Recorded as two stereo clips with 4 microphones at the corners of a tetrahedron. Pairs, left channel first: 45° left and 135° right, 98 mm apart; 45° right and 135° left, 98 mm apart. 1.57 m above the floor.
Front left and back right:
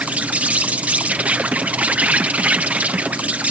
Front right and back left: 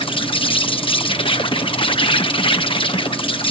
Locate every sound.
0.0 s an insect: 60° right